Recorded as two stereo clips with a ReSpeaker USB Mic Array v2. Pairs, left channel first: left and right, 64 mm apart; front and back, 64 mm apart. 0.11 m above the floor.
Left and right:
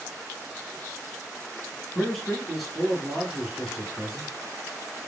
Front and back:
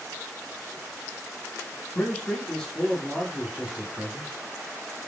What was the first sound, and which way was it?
A man speaking, 5° left.